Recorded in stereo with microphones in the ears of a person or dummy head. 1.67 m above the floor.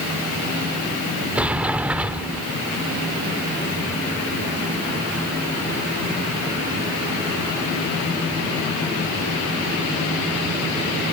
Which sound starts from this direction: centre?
A sliding door, at 1.4 s.